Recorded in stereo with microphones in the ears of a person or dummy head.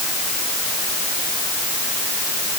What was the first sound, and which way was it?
Only background noise.